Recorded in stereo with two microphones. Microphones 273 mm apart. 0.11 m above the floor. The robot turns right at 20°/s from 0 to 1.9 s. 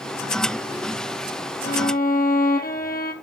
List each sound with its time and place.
1.6 s a violin: 40° left (ahead or behind), 1.3 m; by 3.1 s 35° left (ahead or behind), 1.3 m